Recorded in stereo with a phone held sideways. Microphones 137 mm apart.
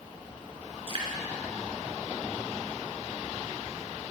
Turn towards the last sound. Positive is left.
turn(degrees=-40)  # may be behind; listen again after turning